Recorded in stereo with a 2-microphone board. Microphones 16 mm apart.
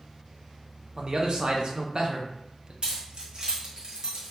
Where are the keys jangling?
55° right (ahead or behind), 0.9 m.